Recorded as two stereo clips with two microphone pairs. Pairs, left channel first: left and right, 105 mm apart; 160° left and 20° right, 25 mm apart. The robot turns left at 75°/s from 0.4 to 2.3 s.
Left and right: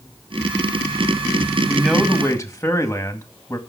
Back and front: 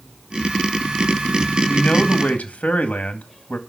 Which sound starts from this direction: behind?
A man speaking, at 1.7 s.